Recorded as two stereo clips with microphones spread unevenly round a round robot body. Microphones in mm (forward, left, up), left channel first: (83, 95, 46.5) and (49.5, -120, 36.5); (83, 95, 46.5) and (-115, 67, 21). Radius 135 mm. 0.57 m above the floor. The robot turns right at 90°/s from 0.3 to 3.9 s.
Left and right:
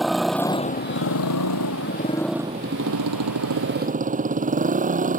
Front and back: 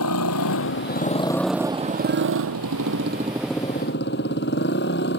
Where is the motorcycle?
10° right; by 5.2 s 45° right.